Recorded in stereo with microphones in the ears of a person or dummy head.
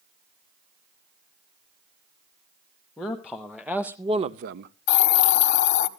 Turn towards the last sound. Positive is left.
turn(degrees=55)  # may be behind; listen again after turning